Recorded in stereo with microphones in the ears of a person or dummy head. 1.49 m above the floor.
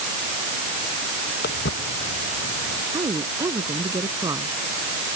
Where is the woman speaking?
20° right (ahead or behind).